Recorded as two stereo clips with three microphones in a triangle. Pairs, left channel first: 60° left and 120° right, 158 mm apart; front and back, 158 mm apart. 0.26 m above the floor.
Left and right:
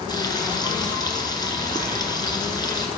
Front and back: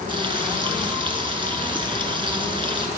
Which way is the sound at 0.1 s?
120° left.